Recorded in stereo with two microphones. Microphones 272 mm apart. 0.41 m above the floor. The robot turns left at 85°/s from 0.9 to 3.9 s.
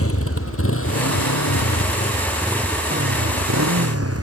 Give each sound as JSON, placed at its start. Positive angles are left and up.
{"t": 0.0, "sound": "a motorcycle", "side_deg": 55}